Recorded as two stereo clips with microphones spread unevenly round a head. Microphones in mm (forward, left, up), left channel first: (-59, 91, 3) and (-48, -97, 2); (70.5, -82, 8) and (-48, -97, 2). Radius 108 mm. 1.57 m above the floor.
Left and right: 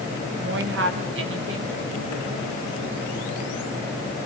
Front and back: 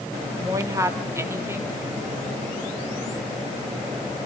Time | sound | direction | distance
0.4 | a woman speaking | 110° right | 3 m